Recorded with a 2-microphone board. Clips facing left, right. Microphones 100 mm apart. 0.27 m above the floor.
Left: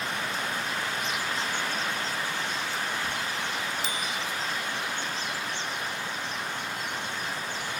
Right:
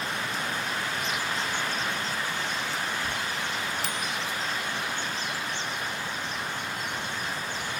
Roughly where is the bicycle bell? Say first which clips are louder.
Even; right.